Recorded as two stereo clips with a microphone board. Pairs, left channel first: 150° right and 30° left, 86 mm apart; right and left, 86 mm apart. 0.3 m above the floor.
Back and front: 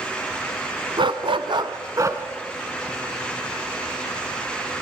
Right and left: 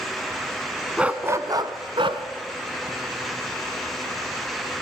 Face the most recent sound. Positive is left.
turn(degrees=90)